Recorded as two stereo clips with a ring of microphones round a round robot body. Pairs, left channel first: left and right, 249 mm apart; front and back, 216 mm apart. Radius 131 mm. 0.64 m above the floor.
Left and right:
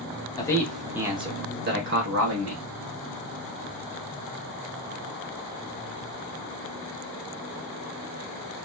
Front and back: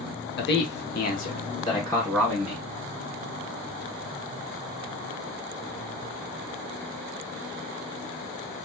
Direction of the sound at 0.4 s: 20° left.